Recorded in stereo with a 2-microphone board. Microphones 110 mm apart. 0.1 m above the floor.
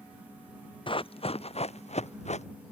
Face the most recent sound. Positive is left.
turn(degrees=75)  # may be behind; listen again after turning